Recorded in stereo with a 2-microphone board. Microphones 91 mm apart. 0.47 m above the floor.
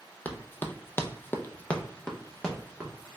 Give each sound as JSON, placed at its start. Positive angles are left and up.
{"t": 0.2, "sound": "running footsteps", "side_deg": 15, "distance_m": 0.7}